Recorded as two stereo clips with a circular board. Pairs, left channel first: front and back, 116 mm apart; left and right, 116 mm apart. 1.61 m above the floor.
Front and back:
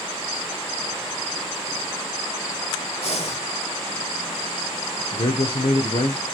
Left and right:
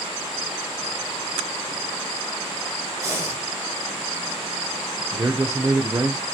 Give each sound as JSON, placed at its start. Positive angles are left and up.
{"t": 3.0, "sound": "breathing", "azimuth_deg": -30, "distance_m": 3.0}
{"t": 5.1, "sound": "a man speaking", "azimuth_deg": -25, "distance_m": 0.9}